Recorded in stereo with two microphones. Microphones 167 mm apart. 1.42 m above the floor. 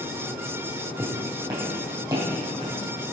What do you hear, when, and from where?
1.0 s footsteps: 20° right (ahead or behind), 3 m; by 2.8 s 30° right (ahead or behind), 5 m